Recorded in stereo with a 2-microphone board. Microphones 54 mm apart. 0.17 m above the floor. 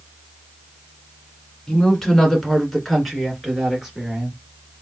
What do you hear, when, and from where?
1.7 s a woman speaking: 10° left (ahead or behind), 1.6 m; by 4.4 s 10° right (ahead or behind), 2.5 m